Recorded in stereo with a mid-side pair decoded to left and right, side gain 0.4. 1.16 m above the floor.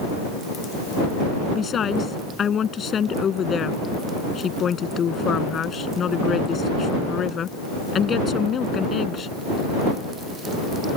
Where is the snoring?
No snoring in this recording.